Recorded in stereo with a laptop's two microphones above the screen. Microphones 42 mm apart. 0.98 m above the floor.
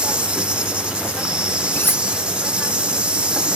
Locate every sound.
0.0 s an insect: 25° right (ahead or behind)
1.7 s cutlery clinking: 50° left (ahead or behind)